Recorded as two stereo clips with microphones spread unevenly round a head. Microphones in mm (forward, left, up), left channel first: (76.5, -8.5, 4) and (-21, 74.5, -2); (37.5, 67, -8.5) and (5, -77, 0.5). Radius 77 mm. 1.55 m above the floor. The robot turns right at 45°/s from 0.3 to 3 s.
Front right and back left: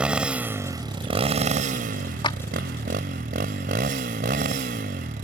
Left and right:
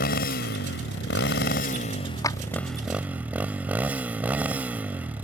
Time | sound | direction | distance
0.0 | a motorcycle | 55° left | ?
2.2 | a clap | 10° left | ?